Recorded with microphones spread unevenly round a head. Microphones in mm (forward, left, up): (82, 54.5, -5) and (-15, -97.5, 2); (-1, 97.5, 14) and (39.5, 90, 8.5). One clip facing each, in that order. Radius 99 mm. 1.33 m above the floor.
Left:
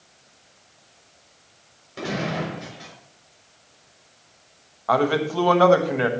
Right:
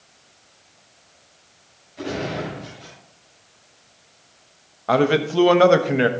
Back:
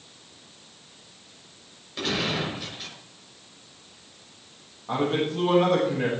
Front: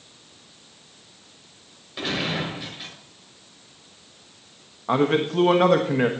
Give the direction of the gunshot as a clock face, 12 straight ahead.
10 o'clock.